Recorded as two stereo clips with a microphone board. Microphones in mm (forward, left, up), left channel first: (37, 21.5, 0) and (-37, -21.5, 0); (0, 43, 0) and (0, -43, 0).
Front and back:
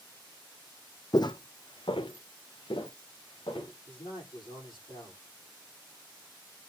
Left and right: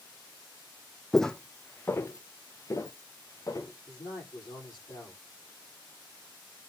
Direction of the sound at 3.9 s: 50° left.